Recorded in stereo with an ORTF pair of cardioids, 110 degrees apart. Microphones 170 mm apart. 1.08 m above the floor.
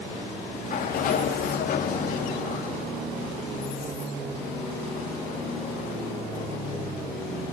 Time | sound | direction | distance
0.5 | a sliding door | 55° left | 1.9 m